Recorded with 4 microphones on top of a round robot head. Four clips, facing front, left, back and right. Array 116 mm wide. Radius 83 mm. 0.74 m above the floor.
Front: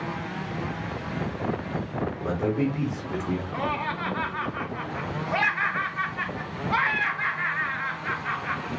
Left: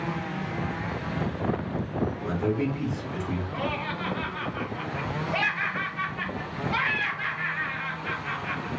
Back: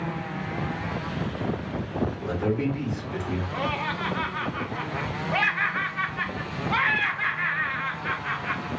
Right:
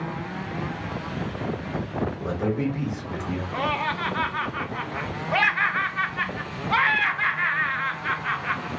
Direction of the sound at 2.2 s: 40° right.